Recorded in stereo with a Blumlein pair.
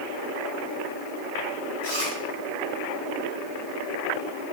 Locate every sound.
1.8 s chewing: 40° right, 8.5 m